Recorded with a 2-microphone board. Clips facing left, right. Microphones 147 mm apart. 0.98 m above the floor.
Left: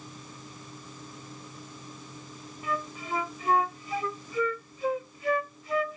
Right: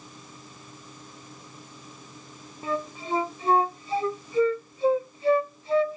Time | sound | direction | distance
2.6 | a flute | 35° right (ahead or behind) | ?